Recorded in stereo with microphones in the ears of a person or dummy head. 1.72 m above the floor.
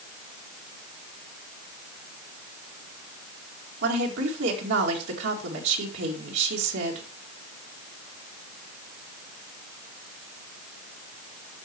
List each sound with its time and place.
3.8 s a woman speaking: 75° right (ahead or behind), 2 m